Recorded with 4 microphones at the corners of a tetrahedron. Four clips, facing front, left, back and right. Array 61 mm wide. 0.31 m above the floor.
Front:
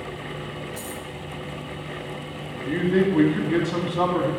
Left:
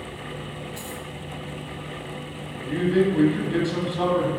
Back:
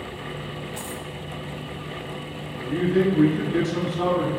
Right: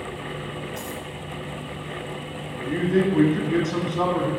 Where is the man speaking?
25° right, 1.8 m.